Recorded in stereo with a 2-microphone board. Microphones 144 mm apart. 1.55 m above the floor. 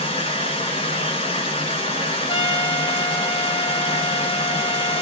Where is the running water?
40° left (ahead or behind), 1.8 m.